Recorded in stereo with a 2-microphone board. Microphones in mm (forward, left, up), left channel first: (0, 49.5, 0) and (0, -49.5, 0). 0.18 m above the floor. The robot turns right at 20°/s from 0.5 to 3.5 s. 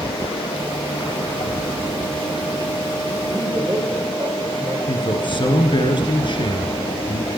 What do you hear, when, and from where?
3.3 s a man speaking: 40° right (ahead or behind), 5 m; by 4.8 s 35° right (ahead or behind), 5 m
4.9 s a man speaking: 50° left (ahead or behind), 2 m